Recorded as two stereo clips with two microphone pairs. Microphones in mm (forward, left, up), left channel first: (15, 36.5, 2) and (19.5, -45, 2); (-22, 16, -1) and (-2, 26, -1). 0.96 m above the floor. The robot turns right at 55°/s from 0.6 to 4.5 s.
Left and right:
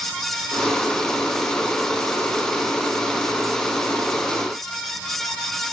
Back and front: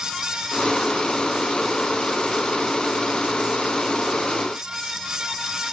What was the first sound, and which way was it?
Only background noise.